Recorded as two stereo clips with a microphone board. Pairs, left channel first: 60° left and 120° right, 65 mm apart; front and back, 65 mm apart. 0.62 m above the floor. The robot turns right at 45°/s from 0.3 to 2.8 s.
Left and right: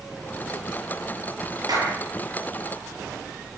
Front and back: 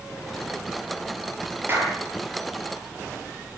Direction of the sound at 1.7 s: 125° right.